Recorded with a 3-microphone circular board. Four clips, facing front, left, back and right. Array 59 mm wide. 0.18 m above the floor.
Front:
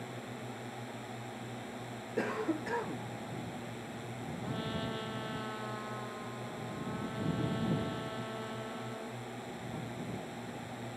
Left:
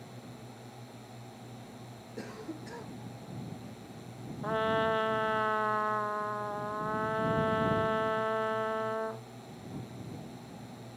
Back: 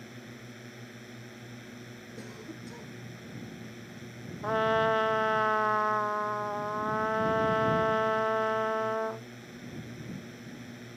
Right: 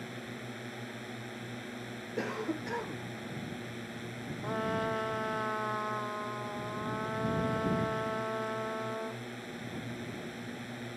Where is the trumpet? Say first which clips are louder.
Left 4 dB, back 14 dB; 165° left.